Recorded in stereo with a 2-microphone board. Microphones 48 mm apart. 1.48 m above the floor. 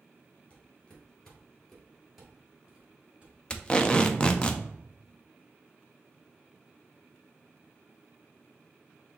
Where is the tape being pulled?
20° left (ahead or behind), 0.5 m.